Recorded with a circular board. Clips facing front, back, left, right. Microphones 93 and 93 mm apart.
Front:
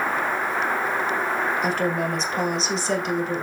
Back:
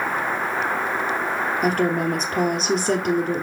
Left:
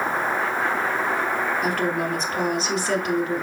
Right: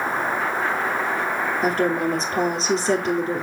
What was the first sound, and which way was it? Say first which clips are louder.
A woman speaking: back 3 dB, right 3 dB; 150° right.